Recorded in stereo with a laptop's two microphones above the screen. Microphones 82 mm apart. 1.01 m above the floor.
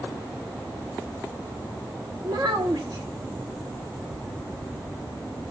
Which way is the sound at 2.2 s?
55° right (ahead or behind).